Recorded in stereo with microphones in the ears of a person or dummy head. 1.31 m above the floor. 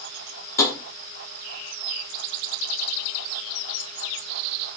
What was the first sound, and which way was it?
Tapping, 10° left (ahead or behind).